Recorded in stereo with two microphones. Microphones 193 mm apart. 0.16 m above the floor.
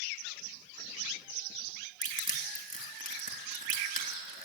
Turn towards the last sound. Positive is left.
turn(degrees=45)  # may be behind; listen again after turning